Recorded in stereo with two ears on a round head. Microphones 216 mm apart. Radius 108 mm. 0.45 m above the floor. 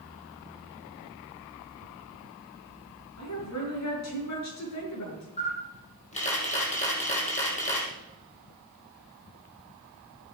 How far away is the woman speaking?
About 6 m.